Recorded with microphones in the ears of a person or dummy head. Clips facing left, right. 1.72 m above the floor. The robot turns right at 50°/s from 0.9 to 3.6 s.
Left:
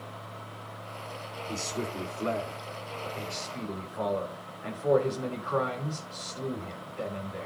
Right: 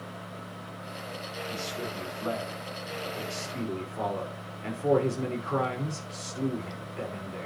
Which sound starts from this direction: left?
A man speaking, at 1.5 s.